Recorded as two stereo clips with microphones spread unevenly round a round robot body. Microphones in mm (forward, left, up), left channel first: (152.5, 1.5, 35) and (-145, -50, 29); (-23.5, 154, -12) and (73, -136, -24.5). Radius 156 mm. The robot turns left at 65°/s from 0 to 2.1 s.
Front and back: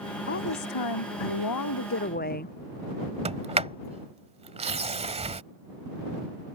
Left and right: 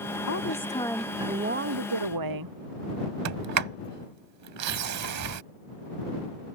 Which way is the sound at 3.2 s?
100° right.